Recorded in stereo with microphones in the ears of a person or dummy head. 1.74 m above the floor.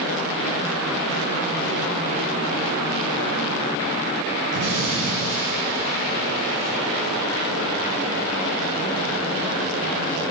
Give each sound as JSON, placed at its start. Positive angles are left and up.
{"t": 4.5, "sound": "an explosion", "side_deg": -55, "distance_m": 3.5}